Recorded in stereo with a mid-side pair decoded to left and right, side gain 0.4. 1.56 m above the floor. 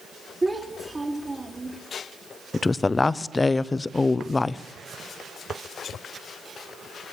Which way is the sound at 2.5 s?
25° left.